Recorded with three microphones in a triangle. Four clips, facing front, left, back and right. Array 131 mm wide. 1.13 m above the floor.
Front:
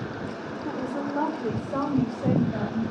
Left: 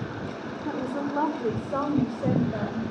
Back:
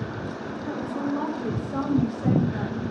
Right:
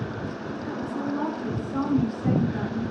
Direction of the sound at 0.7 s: 50° left.